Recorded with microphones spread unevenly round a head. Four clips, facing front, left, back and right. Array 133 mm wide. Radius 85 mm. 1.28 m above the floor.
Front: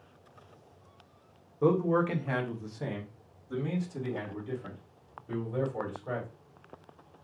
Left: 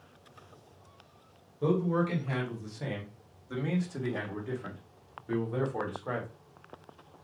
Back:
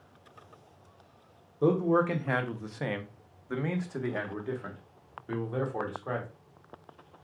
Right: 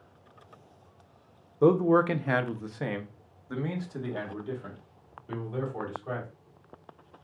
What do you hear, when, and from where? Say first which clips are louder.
1.6 s a man speaking: right 7 dB, back 1 dB; 120° right, 1.0 m; by 6.3 s 155° left, 2.5 m